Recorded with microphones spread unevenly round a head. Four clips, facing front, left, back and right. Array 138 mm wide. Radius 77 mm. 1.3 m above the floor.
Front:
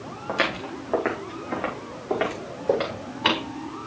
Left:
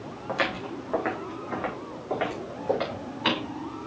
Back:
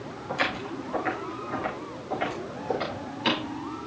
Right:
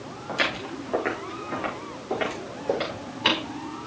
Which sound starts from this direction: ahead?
Footsteps, at 0.3 s.